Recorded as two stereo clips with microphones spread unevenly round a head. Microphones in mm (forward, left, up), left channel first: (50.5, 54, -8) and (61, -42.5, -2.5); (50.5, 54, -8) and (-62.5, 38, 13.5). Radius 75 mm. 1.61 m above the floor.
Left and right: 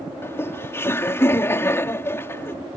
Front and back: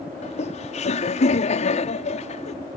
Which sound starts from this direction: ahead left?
Laughter, at 0.2 s.